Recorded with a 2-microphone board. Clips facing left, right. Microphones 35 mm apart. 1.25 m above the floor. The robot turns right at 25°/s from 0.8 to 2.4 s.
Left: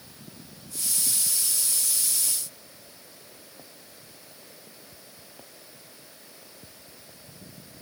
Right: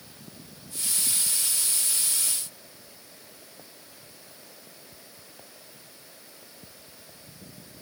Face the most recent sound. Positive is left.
No sound to turn to.